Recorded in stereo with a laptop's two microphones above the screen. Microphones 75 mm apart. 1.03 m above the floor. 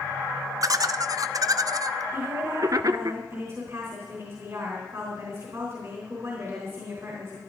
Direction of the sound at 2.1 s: 40° right (ahead or behind).